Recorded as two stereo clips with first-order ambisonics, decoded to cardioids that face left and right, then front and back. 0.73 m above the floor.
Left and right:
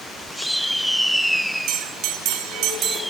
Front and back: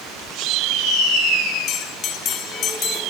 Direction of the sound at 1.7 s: 55° right.